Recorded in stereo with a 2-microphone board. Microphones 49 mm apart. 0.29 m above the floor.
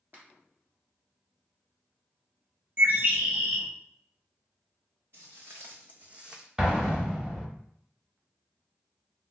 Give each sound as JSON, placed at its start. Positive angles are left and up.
{"t": 0.1, "sound": "a finger snap", "side_deg": -40, "distance_m": 1.7}
{"t": 2.8, "sound": "a bird", "side_deg": -40, "distance_m": 0.7}
{"t": 5.1, "sound": "footsteps", "side_deg": -60, "distance_m": 0.9}
{"t": 6.6, "sound": "an explosion", "side_deg": -15, "distance_m": 0.7}